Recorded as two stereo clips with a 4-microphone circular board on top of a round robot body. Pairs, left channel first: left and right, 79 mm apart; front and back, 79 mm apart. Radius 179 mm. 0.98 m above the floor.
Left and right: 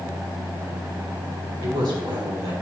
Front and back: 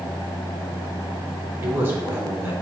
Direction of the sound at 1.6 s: 120° right.